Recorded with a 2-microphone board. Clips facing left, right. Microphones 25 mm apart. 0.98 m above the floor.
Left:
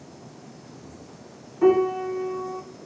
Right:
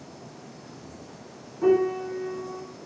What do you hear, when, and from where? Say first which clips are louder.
1.6 s a piano: left 2 dB; 80° left, 1.8 m